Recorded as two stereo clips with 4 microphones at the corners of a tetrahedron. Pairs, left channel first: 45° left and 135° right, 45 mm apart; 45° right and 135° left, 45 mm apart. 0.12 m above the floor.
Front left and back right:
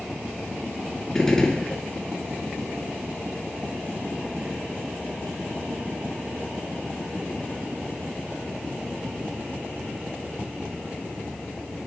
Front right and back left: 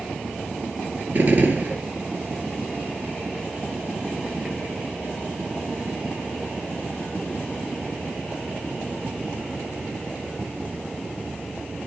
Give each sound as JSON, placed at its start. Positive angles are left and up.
{"t": 1.1, "sound": "a gunshot", "azimuth_deg": 120, "distance_m": 1.9}